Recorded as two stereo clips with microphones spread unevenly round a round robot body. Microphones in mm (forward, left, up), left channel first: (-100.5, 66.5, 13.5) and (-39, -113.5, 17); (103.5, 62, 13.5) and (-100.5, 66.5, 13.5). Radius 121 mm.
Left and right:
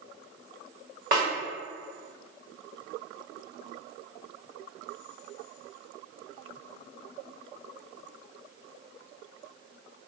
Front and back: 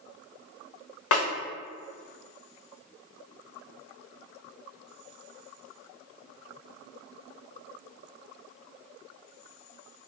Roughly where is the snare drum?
Ahead.